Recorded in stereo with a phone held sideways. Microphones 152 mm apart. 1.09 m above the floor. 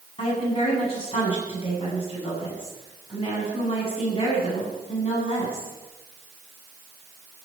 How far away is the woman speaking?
About 8 m.